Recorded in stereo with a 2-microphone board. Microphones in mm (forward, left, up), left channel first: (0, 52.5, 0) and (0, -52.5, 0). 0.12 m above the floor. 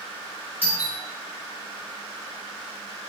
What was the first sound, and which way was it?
A doorbell, 20° right (ahead or behind).